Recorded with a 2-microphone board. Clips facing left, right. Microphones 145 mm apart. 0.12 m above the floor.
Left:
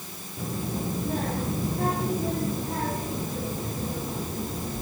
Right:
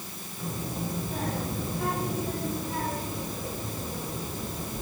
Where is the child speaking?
75° left (ahead or behind), 5 m; by 4.8 s 65° left (ahead or behind), 6.5 m.